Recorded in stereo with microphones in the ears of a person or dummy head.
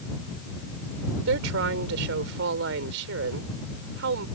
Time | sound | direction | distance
1.3 | a woman speaking | 65° right (ahead or behind) | ?